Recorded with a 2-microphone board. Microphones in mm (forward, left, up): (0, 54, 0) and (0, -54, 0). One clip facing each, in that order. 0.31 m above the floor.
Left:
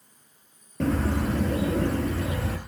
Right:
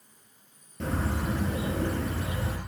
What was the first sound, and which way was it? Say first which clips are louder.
A bird: left 6 dB; 80° left.